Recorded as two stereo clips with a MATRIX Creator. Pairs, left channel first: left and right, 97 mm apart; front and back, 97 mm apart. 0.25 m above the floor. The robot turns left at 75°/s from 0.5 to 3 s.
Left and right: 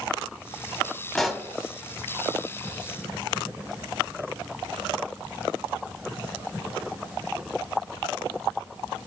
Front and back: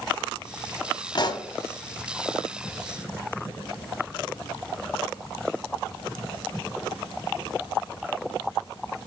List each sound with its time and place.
1.1 s a pop: 10° left, 0.7 m; by 1.5 s 15° right, 0.7 m